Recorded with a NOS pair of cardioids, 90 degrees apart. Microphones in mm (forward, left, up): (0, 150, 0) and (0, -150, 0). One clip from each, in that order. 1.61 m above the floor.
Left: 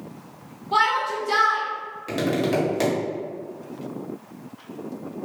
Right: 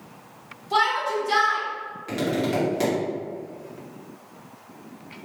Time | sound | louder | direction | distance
0.7 | a shout | left 1 dB | 5° right | 1.7 m
2.1 | tapping | left 2 dB | 20° left | 1.4 m